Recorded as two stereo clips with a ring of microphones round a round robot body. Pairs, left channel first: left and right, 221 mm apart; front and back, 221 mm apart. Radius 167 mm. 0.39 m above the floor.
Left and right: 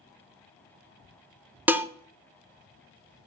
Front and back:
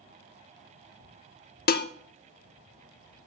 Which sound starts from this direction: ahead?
Dishes clattering, at 1.7 s.